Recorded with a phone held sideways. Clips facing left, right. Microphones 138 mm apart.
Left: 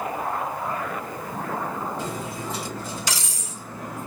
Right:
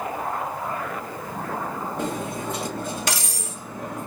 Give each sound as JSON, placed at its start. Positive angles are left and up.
{"t": 2.0, "sound": "cutlery clinking", "side_deg": -50, "distance_m": 0.9}